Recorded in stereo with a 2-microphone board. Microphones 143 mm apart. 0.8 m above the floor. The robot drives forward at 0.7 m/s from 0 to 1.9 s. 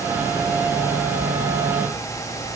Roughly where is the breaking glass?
No breaking glass in this recording.